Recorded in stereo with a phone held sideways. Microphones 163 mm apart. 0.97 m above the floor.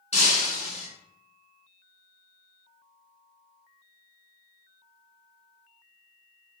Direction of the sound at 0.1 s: 45° left (ahead or behind).